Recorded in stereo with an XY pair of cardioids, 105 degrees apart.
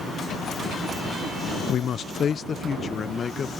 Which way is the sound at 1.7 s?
65° left.